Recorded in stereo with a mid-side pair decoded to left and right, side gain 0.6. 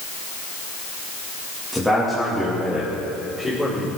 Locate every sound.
1.7 s a man speaking: straight ahead, 2.5 m; by 3.9 s 10° left, 5.5 m